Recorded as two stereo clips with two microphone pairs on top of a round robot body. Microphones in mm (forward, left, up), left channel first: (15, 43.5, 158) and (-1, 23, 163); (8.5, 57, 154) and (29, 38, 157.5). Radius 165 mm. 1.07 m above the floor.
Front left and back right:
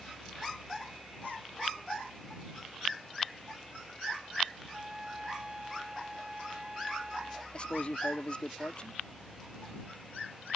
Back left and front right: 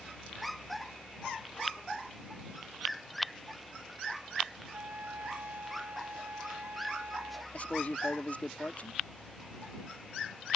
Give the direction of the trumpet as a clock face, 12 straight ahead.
2 o'clock.